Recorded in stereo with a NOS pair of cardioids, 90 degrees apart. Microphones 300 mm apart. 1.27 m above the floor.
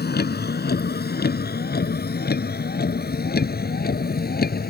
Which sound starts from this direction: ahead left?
A vehicle, at 0.0 s.